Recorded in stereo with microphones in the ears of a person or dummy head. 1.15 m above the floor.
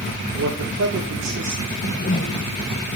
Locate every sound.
0.4 s a man speaking: 75° right (ahead or behind), 3.5 m
1.7 s a whoosh: 40° left (ahead or behind), 1.0 m